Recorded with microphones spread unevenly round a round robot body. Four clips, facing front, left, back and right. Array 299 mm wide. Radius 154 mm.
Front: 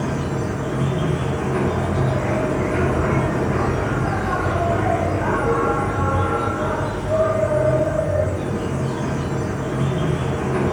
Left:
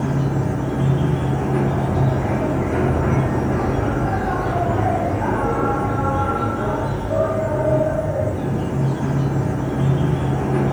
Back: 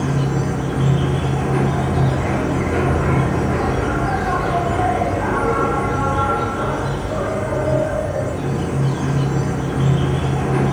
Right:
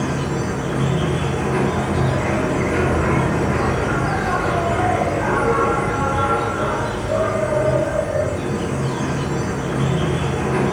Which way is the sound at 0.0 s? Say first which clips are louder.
Even, back 3 dB; 165° left.